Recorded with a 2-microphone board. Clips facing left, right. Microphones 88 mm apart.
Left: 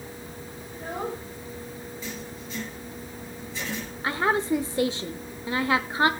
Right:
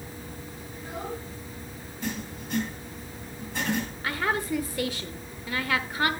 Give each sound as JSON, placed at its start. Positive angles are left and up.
{"t": 0.7, "sound": "a child speaking", "side_deg": 50, "distance_m": 3.5}
{"t": 2.0, "sound": "writing", "side_deg": -60, "distance_m": 6.5}
{"t": 4.0, "sound": "a woman speaking", "side_deg": 25, "distance_m": 1.0}